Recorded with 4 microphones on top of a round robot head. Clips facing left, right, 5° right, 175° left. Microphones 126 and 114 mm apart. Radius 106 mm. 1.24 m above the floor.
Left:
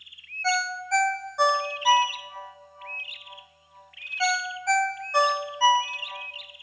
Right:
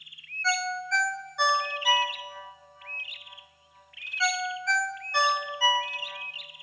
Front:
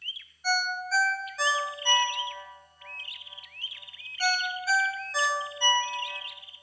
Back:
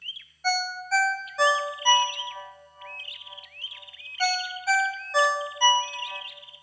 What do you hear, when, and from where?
0.4 s a ringtone: 145° left, 0.9 m